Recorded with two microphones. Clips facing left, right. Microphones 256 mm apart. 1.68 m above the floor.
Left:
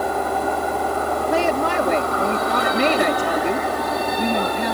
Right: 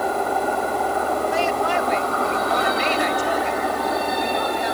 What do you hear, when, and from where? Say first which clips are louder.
1.3 s a woman speaking: left 2 dB; 70° left (ahead or behind)